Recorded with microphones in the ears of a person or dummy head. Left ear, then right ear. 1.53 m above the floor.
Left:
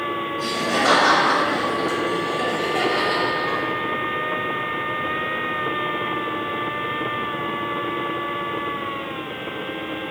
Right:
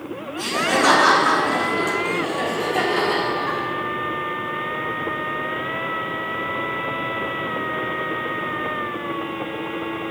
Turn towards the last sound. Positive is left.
turn(degrees=-30)  # may be behind; listen again after turning